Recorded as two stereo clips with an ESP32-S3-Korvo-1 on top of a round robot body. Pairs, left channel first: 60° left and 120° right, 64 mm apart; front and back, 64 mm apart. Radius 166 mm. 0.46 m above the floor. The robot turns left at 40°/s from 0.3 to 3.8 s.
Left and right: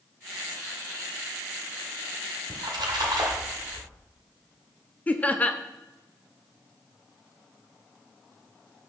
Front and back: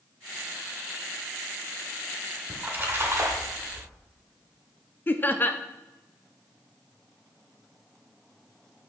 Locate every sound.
2.5 s a splash: 110° right, 1.4 m; by 3.9 s 165° right, 1.4 m
5.1 s laughter: 15° left, 0.8 m